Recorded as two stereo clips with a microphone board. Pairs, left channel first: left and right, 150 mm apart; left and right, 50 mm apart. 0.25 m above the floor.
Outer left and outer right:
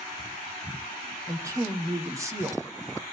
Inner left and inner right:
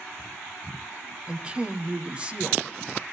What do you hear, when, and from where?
1.3 s a woman speaking: 20° right (ahead or behind), 1.6 m